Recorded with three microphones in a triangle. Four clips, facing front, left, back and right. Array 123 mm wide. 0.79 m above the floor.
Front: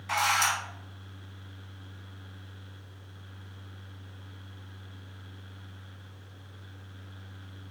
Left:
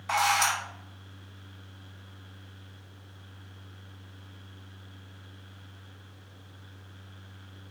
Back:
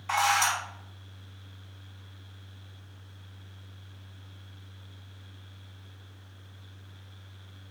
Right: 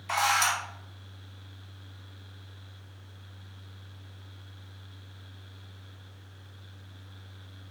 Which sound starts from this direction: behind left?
A camera shutter, at 0.1 s.